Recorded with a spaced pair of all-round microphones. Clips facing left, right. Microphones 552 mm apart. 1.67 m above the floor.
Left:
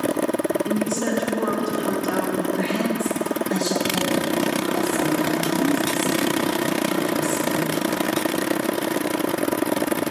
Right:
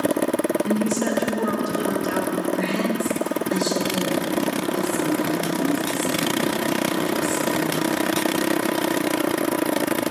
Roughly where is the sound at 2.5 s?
Centre.